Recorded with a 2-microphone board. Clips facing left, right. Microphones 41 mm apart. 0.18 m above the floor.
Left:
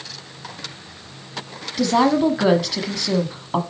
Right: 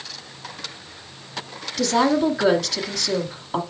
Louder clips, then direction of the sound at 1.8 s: Left 2 dB; 10° left (ahead or behind).